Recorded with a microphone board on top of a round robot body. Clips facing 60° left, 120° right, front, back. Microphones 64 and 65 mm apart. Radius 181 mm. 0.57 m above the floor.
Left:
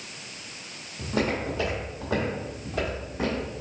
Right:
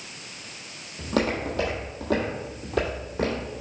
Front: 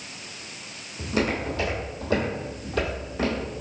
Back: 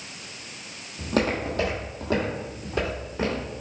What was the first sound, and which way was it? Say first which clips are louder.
Footsteps: right 2 dB, back 1 dB; 145° right.